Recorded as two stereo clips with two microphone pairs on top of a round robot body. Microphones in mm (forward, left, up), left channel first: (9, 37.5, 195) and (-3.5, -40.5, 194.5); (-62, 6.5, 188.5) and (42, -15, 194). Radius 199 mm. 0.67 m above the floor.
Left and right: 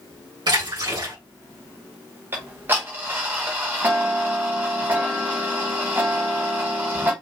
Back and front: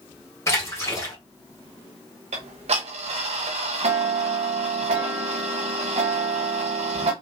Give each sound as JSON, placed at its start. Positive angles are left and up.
{"t": 0.5, "sound": "a splash", "azimuth_deg": -130, "distance_m": 4.0}
{"t": 2.3, "sound": "ticking", "azimuth_deg": -35, "distance_m": 0.7}